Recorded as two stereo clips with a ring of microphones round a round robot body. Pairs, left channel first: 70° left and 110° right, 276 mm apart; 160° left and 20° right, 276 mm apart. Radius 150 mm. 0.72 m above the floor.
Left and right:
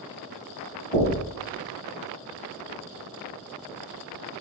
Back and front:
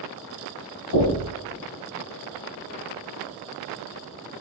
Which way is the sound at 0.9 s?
140° left.